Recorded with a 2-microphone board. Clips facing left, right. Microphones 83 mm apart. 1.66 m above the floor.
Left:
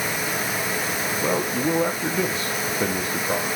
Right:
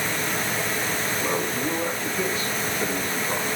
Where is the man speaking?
70° left (ahead or behind), 1.9 m.